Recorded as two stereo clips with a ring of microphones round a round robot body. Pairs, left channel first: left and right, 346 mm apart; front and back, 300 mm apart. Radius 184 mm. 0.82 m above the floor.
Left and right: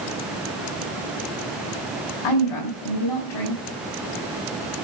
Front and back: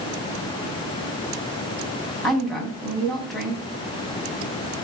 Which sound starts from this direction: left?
A woman speaking, at 2.2 s.